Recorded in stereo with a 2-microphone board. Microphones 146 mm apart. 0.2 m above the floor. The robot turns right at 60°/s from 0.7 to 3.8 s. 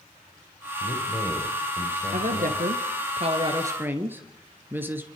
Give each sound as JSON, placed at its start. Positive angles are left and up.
{"t": 0.8, "sound": "a man speaking", "azimuth_deg": 125, "distance_m": 6.0}
{"t": 2.1, "sound": "a woman speaking", "azimuth_deg": -115, "distance_m": 2.5}